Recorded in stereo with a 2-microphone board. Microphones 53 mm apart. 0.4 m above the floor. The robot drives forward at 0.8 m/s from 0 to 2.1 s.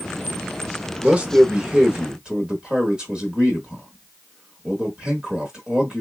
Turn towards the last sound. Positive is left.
turn(degrees=-20)  # may be behind; listen again after turning